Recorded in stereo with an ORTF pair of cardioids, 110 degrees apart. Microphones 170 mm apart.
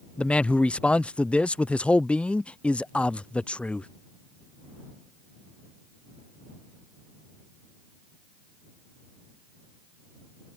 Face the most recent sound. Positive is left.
turn(degrees=10)